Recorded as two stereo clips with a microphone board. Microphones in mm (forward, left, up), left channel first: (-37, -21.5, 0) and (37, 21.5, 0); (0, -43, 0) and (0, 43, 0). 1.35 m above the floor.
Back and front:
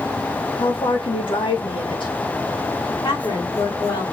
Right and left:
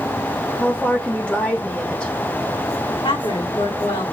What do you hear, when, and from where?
0.6 s a woman speaking: 160° right, 2 m
3.0 s a woman speaking: 110° right, 3.5 m